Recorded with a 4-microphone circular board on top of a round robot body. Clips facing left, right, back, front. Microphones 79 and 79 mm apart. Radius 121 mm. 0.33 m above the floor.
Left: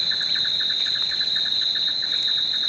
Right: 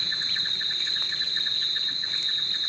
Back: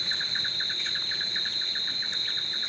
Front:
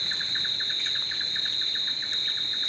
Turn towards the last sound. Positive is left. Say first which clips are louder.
# left 3 dB, back 1 dB
turn(degrees=95)